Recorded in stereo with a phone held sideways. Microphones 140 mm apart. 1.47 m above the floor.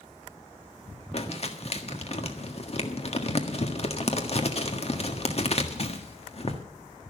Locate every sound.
1.1 s crumpling: 50° left (ahead or behind), 1.6 m